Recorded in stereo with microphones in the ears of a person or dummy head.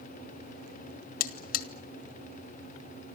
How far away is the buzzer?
About 1.9 m.